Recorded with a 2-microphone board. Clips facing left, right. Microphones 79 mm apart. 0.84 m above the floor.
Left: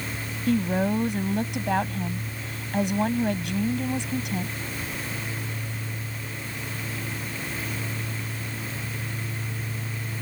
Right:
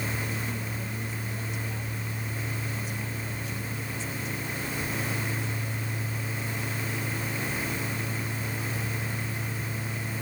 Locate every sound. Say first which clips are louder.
0.5 s a woman speaking: left 12 dB; 80° left